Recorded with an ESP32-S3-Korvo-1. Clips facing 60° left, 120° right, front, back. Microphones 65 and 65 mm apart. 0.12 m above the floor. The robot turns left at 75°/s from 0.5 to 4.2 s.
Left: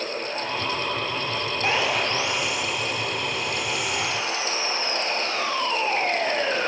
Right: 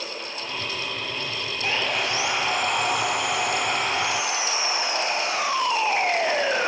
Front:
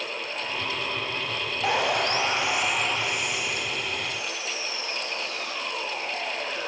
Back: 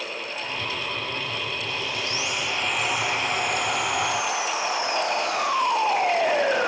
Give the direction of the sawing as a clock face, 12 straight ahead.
12 o'clock.